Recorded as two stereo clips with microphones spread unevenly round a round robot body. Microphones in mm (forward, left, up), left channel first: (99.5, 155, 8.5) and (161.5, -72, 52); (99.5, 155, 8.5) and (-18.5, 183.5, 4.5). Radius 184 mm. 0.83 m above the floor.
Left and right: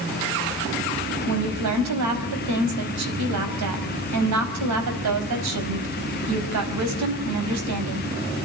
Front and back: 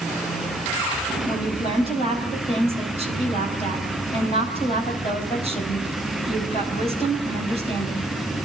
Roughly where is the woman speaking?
Right.